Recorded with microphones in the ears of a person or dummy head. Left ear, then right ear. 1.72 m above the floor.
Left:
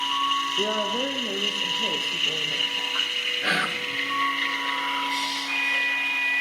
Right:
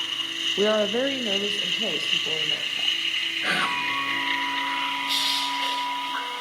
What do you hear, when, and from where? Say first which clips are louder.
0.6 s a woman speaking: right 3 dB; 80° right, 0.6 m; by 3.0 s 25° right (ahead or behind), 1.5 m
3.4 s whispering: right 2 dB; 5° left (ahead or behind), 1.2 m
5.1 s crushing: right 2 dB; 50° right (ahead or behind), 2 m